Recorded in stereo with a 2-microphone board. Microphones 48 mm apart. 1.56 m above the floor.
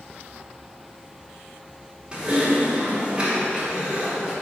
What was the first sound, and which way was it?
Typing on a keyboard, 20° right (ahead or behind).